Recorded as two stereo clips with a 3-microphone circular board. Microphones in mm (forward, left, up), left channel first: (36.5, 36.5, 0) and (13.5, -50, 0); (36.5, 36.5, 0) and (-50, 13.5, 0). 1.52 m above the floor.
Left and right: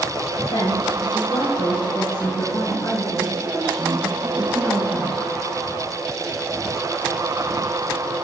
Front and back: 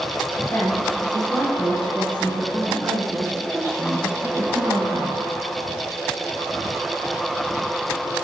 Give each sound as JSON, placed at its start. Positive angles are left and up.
{"t": 0.5, "sound": "a woman speaking", "azimuth_deg": 85, "distance_m": 1.8}